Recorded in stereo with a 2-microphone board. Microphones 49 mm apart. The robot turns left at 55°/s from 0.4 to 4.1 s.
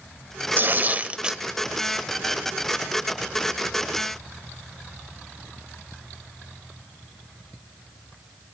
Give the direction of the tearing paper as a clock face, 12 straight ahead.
4 o'clock.